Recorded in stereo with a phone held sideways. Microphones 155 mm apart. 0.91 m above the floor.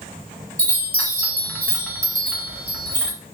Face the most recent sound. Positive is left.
turn(degrees=5)  # may be behind; listen again after turning